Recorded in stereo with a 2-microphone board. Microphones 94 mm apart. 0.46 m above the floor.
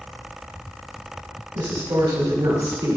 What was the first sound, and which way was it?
A woman speaking, 60° right (ahead or behind).